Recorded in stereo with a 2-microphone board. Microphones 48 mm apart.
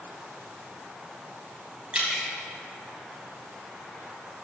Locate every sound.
1.9 s dripping: 25° right (ahead or behind), 3 m